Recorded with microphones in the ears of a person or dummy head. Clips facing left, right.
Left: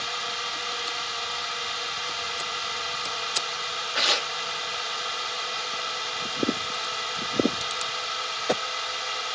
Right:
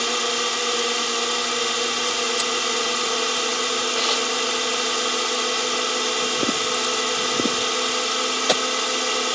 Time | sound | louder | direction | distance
0.0 | a drone | right 12 dB | 60° right (ahead or behind) | ?
3.9 | tearing paper | right 6 dB | 25° left (ahead or behind) | ?